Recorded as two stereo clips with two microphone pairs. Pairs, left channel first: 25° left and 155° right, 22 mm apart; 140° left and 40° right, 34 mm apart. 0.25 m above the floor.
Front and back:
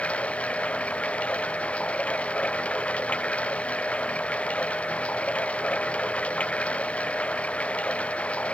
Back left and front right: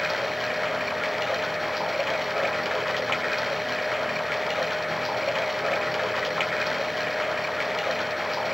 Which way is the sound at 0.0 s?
50° left.